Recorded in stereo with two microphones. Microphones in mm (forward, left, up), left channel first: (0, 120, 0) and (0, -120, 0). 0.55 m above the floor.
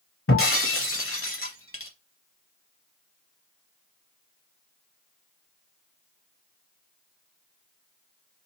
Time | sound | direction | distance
0.3 | breaking glass | 60° left (ahead or behind) | 0.7 m